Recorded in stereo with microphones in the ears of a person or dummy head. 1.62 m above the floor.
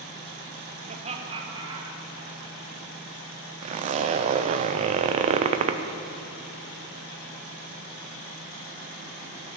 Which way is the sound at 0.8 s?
45° right (ahead or behind).